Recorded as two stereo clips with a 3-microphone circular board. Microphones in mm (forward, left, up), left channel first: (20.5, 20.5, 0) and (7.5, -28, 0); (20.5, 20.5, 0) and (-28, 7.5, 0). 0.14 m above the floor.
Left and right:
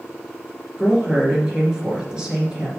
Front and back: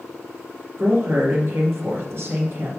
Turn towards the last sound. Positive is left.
turn(degrees=-175)